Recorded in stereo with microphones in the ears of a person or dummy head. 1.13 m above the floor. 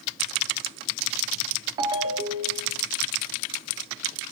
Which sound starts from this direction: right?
A ringtone, at 1.8 s.